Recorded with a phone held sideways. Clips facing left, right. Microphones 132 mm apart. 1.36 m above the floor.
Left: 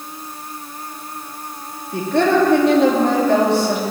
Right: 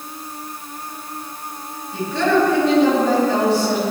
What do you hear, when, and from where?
1.9 s a woman speaking: 60° left (ahead or behind), 3 m